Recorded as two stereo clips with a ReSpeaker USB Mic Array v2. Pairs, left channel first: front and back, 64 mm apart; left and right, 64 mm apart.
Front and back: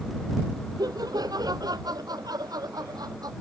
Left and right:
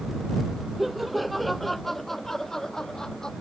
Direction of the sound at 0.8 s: 175° right.